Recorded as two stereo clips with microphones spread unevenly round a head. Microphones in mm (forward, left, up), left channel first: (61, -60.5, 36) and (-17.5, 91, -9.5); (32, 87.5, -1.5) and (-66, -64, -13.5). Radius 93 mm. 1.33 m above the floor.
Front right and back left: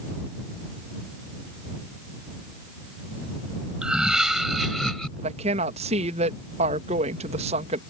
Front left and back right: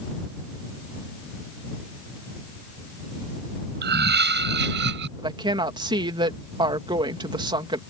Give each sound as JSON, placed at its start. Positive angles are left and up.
{"t": 3.8, "sound": "laughter", "azimuth_deg": -155}
{"t": 5.2, "sound": "a woman speaking", "azimuth_deg": 170}